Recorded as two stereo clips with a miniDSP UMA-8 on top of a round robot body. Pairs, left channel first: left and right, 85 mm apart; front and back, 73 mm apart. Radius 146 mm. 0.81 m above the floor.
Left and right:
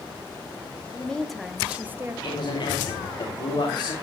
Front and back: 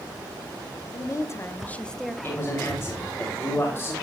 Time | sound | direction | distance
0.9 | a woman speaking | 15° left | 1.2 m
2.2 | a man speaking | 60° left | 2.5 m